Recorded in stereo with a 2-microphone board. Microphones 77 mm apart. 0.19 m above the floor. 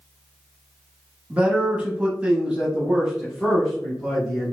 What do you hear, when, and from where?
1.3 s a man speaking: 15° right (ahead or behind), 1.1 m; by 4.5 s centre (ahead or behind), 1.5 m